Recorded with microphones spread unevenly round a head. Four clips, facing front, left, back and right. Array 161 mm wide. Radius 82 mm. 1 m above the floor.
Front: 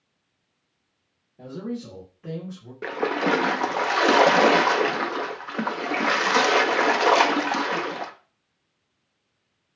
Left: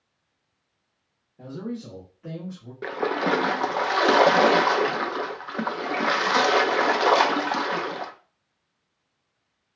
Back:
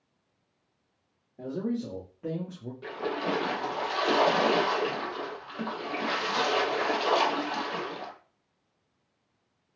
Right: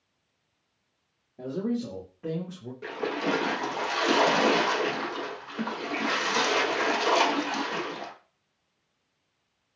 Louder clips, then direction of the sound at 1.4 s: Right 4 dB, back 1 dB; 125° right.